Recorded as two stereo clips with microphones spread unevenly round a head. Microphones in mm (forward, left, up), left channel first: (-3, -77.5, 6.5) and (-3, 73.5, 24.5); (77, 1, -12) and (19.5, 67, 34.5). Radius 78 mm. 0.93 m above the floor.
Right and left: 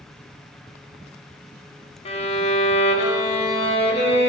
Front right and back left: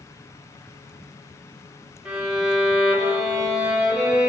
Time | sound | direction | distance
2.0 | a violin | 135° right | 1.7 m